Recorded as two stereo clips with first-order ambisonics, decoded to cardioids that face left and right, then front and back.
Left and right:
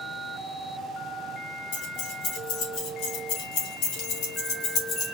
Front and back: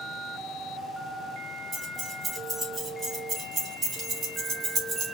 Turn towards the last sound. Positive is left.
turn(degrees=125)